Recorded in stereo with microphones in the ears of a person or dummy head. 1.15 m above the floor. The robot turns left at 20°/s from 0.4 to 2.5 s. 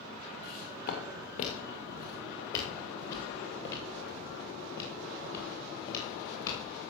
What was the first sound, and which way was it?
Footsteps, 55° left (ahead or behind).